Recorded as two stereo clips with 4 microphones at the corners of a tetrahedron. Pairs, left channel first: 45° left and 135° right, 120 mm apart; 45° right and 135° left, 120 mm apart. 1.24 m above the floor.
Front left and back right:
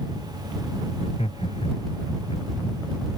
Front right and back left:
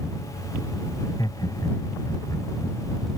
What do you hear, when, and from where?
1.0 s laughter: 15° left